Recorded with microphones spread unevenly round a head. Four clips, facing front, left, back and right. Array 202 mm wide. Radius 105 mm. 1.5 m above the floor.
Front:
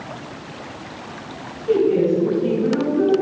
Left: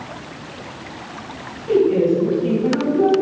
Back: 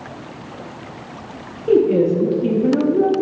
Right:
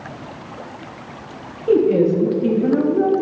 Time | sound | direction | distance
1.7 | a woman speaking | 145° right | 3.5 m